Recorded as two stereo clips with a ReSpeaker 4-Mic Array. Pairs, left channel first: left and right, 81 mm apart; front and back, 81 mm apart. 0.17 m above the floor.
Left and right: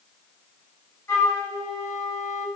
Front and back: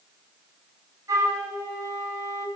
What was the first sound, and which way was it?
A flute, 140° left.